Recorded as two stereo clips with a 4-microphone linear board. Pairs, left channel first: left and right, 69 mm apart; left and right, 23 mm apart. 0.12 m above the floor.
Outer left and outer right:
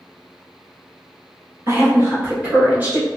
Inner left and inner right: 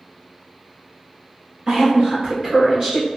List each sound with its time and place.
1.7 s a woman speaking: 35° right (ahead or behind), 2.0 m; by 3.1 s 20° right (ahead or behind), 1.7 m